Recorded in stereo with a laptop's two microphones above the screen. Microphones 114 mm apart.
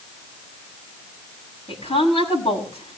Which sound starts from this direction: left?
A woman speaking, at 1.7 s.